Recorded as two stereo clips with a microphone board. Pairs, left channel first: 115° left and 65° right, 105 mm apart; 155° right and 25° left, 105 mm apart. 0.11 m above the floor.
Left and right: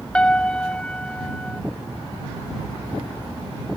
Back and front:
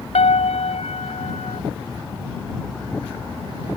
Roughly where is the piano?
Behind.